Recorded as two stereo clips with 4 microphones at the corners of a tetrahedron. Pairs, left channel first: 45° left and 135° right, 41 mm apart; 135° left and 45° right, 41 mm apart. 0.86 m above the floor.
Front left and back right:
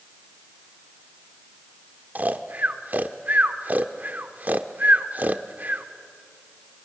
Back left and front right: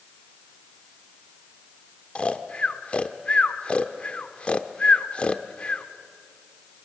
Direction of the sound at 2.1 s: 165° right.